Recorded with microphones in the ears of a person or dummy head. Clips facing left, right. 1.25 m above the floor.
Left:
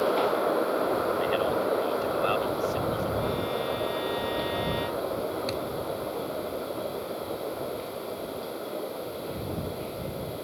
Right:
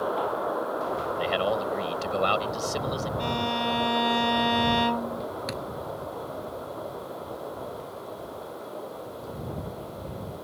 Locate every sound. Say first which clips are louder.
1.2 s a man speaking: left 1 dB; 65° right (ahead or behind)
3.2 s a violin: even; 75° right (ahead or behind)
5.5 s a thud: left 3 dB; 10° right (ahead or behind)